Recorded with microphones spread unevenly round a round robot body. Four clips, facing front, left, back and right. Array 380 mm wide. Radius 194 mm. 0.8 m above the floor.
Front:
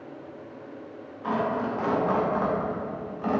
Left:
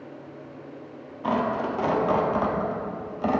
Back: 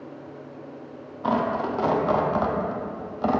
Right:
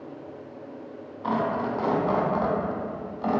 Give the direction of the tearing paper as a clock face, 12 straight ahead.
7 o'clock.